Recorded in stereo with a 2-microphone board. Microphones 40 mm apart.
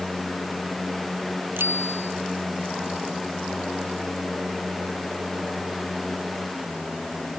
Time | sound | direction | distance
1.6 | a bicycle bell | 60° right (ahead or behind) | ?